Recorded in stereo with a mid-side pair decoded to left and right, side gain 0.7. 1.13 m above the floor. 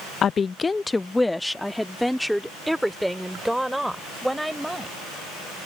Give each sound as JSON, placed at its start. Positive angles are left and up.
{"t": 0.2, "sound": "a woman speaking", "azimuth_deg": 40}